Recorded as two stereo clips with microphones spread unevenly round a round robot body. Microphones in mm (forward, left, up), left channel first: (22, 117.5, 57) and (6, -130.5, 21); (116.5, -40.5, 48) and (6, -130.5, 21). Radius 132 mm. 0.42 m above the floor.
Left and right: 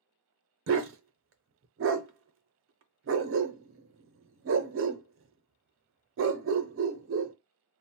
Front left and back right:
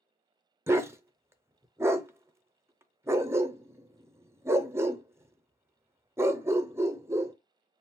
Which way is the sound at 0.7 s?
75° right.